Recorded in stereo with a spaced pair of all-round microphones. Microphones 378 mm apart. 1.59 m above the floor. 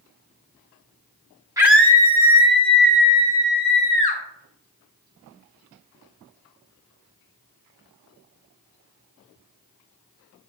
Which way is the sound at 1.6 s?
10° right (ahead or behind).